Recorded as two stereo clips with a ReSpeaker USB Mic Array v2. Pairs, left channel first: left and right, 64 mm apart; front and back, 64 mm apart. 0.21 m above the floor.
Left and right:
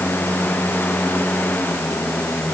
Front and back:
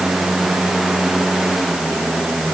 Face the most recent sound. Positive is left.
No sound to turn to.